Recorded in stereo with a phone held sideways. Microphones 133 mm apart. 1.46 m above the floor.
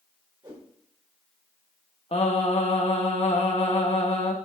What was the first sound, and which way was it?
A whoosh, 40° right (ahead or behind).